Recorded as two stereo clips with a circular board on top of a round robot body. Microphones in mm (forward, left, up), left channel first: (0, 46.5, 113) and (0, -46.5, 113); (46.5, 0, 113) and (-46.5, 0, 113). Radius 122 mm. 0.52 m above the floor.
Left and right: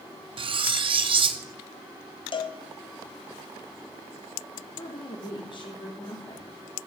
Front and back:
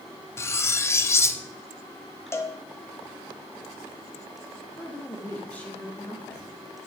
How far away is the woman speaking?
About 1.5 m.